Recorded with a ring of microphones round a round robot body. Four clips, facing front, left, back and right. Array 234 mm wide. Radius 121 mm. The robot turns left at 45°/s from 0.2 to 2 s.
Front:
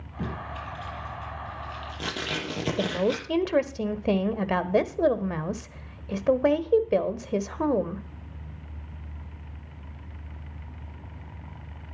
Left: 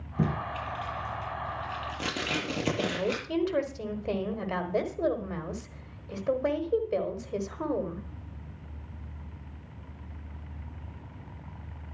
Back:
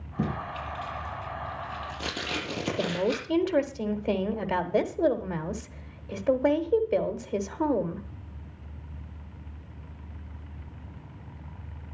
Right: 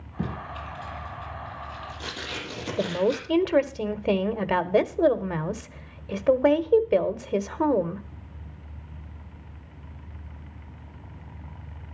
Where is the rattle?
No rattle in this recording.